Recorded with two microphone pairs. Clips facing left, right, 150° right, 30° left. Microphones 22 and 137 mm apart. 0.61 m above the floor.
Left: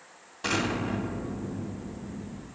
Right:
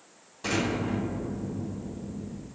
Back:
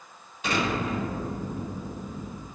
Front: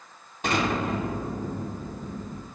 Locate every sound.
0.4 s an explosion: 45° left, 1.8 m